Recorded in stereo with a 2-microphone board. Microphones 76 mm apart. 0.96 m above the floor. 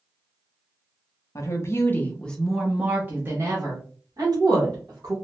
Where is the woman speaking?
40° left (ahead or behind), 0.9 m; by 5.2 s 55° right (ahead or behind), 1.6 m.